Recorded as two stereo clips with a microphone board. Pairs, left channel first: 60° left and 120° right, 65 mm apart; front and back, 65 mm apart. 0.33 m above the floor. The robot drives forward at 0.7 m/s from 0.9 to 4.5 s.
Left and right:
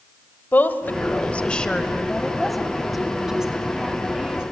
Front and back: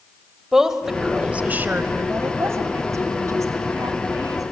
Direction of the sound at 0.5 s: 100° left.